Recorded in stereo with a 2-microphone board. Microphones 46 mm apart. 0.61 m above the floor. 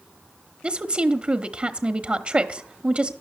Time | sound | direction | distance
0.6 | a woman speaking | 30° right (ahead or behind) | 1.0 m